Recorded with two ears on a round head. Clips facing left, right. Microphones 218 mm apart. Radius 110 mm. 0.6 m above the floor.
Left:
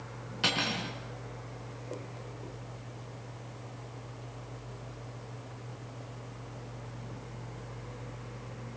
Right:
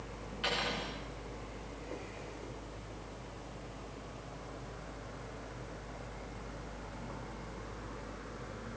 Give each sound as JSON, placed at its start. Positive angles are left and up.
{"t": 0.4, "sound": "cutlery clinking", "side_deg": 65, "distance_m": 4.5}